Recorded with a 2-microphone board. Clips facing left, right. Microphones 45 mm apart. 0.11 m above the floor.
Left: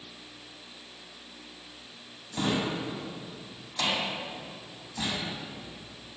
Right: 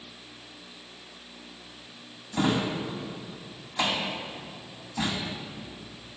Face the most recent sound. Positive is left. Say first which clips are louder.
# right 3 dB
turn(degrees=-15)  # may be behind; listen again after turning